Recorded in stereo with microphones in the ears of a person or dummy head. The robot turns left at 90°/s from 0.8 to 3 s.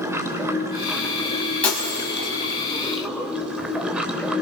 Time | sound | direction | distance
0.0 | running water | 165° right | 3 m
1.6 | breaking glass | 10° left (ahead or behind) | 4 m